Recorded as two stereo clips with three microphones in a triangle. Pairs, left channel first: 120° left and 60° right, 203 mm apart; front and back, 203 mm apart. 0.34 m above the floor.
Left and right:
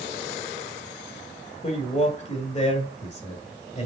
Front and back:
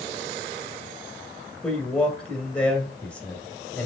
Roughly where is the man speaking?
Left.